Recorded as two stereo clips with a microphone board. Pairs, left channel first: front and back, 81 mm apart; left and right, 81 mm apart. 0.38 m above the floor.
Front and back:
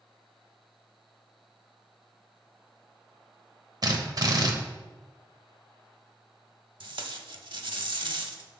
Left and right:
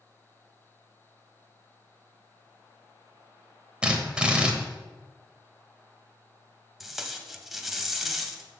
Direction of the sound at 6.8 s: 175° right.